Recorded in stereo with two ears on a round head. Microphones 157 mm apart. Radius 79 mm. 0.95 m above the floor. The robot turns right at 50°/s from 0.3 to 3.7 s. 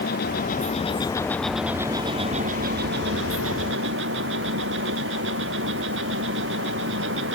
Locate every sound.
0.0 s an insect: 120° left; by 7.3 s 70° right